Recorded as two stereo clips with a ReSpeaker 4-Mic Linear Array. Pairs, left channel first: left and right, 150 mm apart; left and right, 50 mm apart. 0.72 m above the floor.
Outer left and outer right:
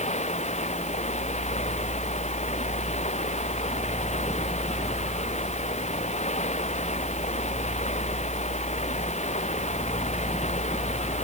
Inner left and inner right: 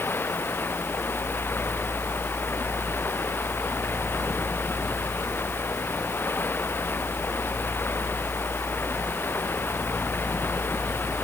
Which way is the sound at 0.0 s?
50° left (ahead or behind).